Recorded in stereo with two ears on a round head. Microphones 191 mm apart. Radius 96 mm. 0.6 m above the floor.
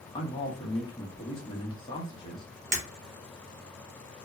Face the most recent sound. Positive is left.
turn(degrees=-40)  # may be behind; listen again after turning